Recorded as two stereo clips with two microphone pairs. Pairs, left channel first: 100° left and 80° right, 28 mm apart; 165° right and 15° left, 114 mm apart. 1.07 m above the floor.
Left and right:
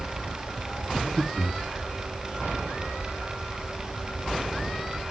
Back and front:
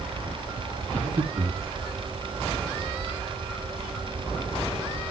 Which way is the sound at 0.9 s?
10° right.